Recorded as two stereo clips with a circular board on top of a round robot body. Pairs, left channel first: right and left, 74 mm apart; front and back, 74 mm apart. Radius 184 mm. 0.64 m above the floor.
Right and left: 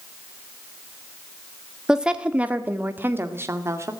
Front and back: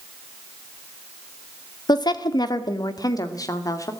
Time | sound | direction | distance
1.9 | a woman speaking | 10° left | 2.0 m